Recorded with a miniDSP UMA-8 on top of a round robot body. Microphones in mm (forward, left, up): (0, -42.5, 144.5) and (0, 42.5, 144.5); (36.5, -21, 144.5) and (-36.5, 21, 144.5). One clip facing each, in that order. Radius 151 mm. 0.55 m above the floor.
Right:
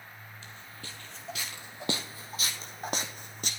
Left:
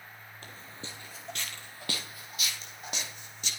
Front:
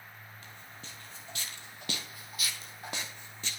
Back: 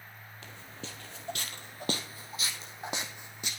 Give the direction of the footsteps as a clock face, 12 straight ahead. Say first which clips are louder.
Left 3 dB, back 8 dB; 7 o'clock.